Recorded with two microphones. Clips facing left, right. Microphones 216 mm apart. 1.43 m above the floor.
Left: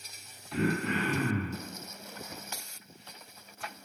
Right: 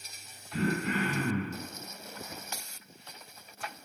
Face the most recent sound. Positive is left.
turn(degrees=70)  # may be behind; listen again after turning